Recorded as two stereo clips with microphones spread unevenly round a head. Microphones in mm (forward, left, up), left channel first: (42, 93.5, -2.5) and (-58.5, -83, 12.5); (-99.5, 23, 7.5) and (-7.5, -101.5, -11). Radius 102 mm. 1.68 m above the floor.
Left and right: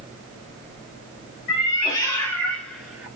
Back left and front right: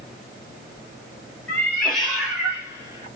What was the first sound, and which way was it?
A cat meowing, 75° left.